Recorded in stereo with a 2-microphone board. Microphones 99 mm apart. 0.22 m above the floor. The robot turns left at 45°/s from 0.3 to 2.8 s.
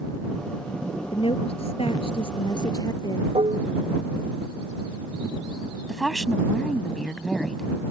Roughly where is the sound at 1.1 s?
Behind left.